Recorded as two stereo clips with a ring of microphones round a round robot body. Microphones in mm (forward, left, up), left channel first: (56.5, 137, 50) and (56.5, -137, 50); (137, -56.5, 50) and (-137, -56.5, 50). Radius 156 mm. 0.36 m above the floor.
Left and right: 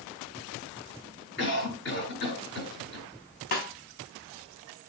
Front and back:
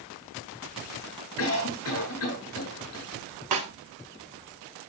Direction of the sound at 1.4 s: 45° left.